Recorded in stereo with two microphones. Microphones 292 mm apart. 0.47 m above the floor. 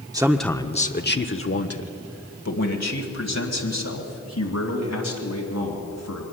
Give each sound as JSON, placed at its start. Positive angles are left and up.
{"t": 0.1, "sound": "a man speaking", "side_deg": -15, "distance_m": 0.7}